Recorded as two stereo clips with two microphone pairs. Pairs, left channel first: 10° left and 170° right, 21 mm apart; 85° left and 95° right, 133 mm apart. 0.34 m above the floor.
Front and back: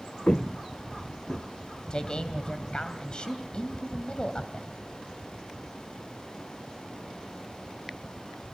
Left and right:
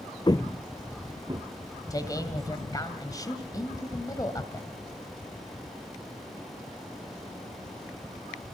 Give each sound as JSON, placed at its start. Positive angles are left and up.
{"t": 0.3, "sound": "footsteps", "azimuth_deg": 30, "distance_m": 1.0}
{"t": 1.9, "sound": "a man speaking", "azimuth_deg": 35, "distance_m": 2.5}